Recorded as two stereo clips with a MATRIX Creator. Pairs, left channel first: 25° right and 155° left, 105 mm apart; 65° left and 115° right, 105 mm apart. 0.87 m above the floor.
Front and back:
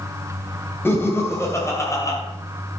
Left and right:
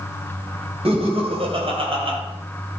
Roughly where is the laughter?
Right.